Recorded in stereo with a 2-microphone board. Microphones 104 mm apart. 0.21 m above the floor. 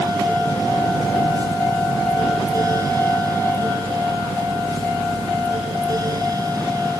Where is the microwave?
No microwave in this recording.